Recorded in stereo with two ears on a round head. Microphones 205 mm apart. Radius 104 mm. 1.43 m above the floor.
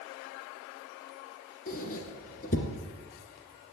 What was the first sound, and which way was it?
A squeak, 40° left (ahead or behind).